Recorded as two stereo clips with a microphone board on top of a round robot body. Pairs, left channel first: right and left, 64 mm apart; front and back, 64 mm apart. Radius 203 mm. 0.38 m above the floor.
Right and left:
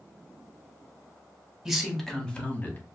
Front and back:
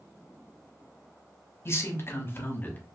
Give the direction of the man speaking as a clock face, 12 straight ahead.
12 o'clock.